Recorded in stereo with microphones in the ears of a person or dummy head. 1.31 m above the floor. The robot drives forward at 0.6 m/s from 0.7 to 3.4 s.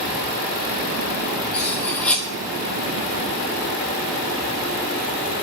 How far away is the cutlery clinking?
About 1.3 m.